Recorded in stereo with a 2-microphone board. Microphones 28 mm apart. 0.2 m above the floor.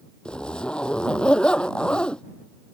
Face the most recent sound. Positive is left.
turn(degrees=35)  # may be behind; listen again after turning